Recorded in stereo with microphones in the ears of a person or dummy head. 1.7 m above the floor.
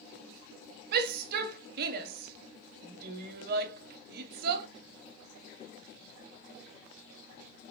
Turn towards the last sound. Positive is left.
turn(degrees=-60)  # may be behind; listen again after turning